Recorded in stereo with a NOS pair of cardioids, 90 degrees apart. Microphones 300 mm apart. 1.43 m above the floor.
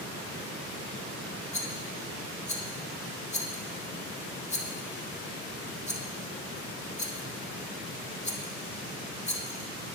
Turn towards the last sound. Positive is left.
turn(degrees=20)